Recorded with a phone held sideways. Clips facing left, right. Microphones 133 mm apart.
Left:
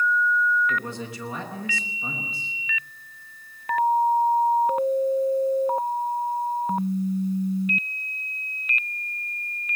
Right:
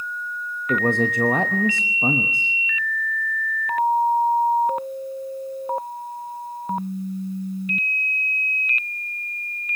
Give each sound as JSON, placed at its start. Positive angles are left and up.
{"t": 0.7, "sound": "a man speaking", "side_deg": -55, "distance_m": 1.0}